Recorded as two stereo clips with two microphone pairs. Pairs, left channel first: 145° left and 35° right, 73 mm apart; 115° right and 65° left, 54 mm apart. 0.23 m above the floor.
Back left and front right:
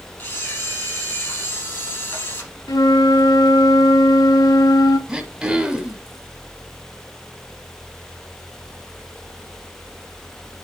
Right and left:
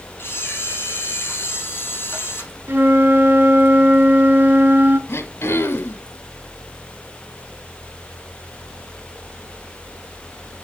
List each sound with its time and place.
0.2 s a camera shutter: 160° right, 4 m
2.7 s a flute: 120° left, 0.6 m
5.1 s throat clearing: 110° right, 1.2 m